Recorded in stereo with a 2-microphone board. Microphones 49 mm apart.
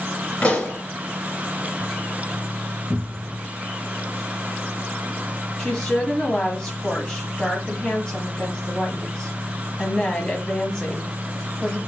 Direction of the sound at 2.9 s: 5° left (ahead or behind).